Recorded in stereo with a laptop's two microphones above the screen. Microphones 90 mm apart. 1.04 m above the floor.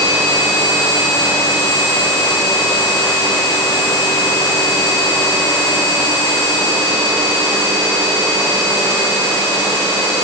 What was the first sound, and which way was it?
Only background noise.